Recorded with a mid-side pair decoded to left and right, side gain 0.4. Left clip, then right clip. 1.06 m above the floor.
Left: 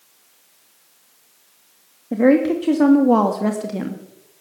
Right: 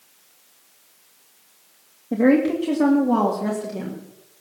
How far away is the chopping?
No chopping in this recording.